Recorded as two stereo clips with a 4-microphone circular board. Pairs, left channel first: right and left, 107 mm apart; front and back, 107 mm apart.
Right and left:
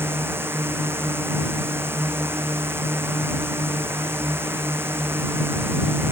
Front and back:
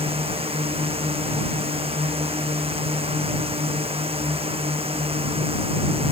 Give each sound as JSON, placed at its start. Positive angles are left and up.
{"t": 0.0, "sound": "a drone", "azimuth_deg": 160}